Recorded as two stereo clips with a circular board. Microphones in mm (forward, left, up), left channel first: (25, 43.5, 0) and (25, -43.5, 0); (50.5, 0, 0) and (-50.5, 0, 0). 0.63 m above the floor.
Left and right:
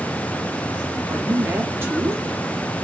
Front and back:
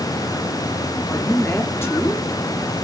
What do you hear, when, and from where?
1.1 s a woman speaking: 45° right, 1.0 m